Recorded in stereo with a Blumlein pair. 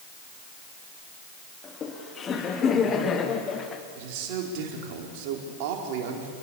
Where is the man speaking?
45° right, 4.5 m.